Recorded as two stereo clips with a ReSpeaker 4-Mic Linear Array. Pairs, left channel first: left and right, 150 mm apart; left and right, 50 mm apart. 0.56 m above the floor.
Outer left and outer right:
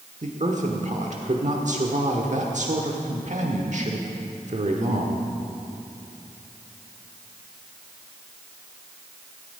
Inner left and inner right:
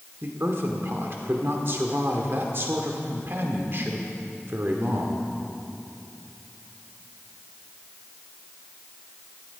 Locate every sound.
0.2 s a woman speaking: 55° right (ahead or behind), 1.2 m